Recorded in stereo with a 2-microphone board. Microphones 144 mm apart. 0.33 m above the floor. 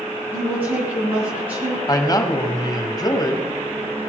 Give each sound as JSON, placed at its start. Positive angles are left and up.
{"t": 0.3, "sound": "a woman speaking", "side_deg": -15, "distance_m": 3.5}
{"t": 1.9, "sound": "a man speaking", "side_deg": 25, "distance_m": 1.6}